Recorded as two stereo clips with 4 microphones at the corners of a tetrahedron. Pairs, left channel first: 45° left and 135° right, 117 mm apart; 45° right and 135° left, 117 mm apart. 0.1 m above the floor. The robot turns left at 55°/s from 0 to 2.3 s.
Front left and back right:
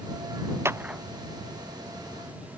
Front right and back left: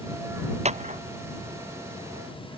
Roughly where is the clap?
Behind left.